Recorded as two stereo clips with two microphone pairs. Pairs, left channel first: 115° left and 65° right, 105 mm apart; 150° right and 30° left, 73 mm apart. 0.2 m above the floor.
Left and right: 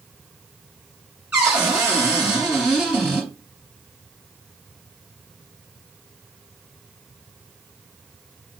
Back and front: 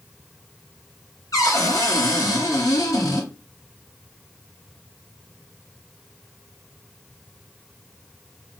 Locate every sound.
1.3 s a cupboard door: 145° right, 1.7 m